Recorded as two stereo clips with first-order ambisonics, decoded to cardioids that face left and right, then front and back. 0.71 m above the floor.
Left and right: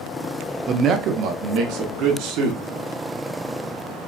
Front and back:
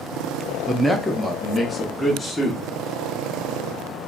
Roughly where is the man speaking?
Right.